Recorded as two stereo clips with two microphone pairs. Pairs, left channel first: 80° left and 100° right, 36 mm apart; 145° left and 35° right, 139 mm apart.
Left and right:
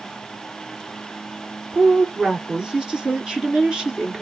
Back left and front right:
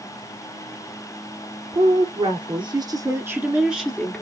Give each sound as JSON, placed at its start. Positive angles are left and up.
{"t": 1.7, "sound": "a woman speaking", "azimuth_deg": -30, "distance_m": 2.0}